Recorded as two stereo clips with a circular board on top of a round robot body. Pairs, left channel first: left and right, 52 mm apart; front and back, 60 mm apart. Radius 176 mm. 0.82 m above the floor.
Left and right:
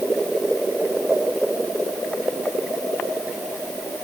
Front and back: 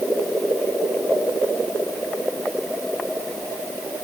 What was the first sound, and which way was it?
Only background noise.